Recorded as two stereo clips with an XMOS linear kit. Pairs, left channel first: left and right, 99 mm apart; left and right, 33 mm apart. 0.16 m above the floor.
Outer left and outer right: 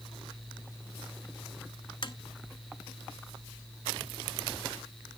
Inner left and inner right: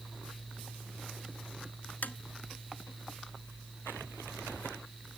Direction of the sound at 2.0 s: 55° left (ahead or behind).